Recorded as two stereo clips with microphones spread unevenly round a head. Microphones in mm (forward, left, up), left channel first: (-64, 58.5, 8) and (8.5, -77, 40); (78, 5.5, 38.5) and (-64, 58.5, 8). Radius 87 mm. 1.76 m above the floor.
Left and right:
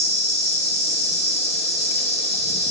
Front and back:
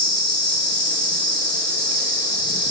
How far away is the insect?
About 1.7 m.